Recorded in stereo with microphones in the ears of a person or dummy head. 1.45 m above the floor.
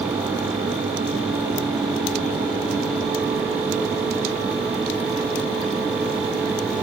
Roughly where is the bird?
No bird in this recording.